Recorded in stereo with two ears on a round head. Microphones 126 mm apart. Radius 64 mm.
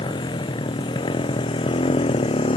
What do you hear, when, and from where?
0.0 s a motorcycle: 35° left (ahead or behind); by 2.6 s 40° left (ahead or behind)